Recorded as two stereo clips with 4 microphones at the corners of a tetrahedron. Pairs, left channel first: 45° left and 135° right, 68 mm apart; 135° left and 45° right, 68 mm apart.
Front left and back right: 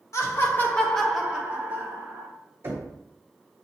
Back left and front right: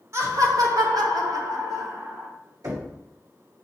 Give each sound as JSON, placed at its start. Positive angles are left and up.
{"t": 0.1, "sound": "laughter", "azimuth_deg": 0, "distance_m": 1.2}
{"t": 2.6, "sound": "knocking", "azimuth_deg": -80, "distance_m": 1.6}